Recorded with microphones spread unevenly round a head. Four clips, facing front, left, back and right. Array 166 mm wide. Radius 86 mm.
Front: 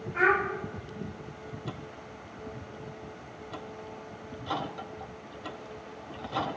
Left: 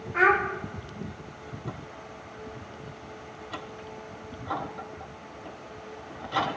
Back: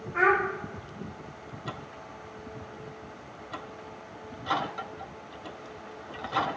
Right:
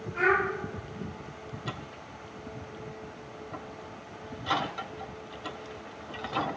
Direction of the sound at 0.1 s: 145° left.